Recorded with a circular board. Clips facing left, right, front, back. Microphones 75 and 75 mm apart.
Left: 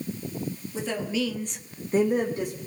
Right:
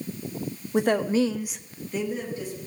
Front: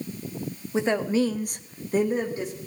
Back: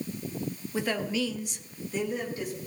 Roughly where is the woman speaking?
Ahead right.